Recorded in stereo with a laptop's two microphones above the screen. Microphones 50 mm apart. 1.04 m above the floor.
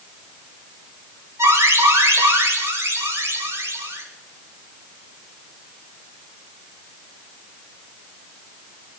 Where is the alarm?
65° right (ahead or behind), 6 m.